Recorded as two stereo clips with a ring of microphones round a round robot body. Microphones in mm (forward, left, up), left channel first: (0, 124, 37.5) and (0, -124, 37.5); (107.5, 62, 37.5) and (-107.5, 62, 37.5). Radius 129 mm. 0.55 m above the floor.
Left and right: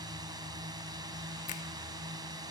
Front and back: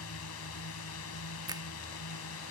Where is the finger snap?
120° left.